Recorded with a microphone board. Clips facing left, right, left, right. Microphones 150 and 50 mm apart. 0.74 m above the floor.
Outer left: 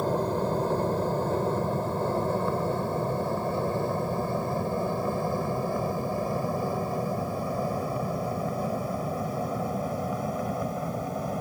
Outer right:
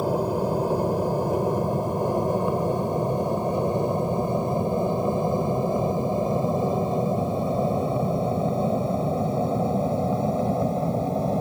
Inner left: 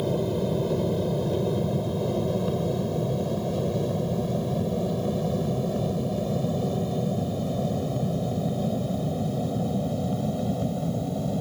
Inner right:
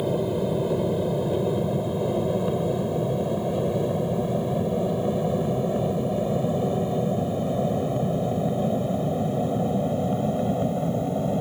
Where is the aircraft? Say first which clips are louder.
Outer right 3 dB, inner right 1 dB; 10° right (ahead or behind); by 11.4 s 30° right (ahead or behind).